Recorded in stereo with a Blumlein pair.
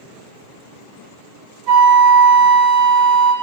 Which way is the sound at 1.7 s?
5° right.